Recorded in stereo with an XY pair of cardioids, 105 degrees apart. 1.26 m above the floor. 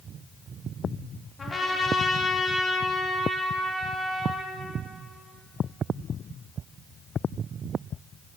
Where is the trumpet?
30° left, 1.6 m.